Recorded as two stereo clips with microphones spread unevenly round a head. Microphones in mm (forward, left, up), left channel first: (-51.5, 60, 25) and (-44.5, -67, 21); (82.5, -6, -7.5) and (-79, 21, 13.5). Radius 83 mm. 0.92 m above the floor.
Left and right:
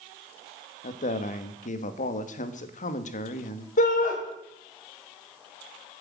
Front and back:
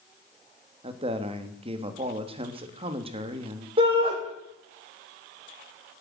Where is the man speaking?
110° left, 1.3 m.